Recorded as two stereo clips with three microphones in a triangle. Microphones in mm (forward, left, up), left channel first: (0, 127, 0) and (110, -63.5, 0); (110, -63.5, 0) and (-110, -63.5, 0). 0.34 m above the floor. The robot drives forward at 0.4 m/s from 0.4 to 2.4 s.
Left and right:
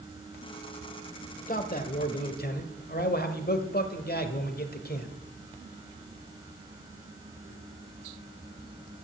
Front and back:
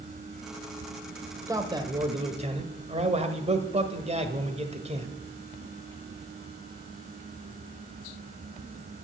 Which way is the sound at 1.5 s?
115° left.